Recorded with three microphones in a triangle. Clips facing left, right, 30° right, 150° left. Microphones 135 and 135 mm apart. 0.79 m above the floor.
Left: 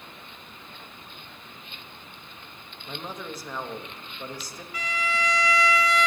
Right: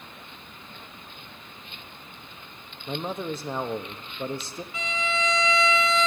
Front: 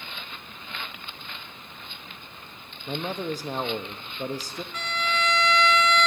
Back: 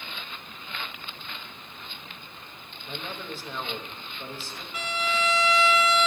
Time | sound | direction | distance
2.9 | a man speaking | 40° right | 0.7 m
4.7 | a violin | 135° right | 0.6 m